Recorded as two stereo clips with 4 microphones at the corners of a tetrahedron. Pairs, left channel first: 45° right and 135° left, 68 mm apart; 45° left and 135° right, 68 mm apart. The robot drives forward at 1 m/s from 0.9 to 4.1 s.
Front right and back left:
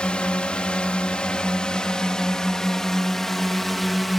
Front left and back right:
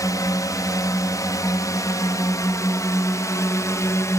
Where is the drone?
30° left; by 4.2 s 45° left.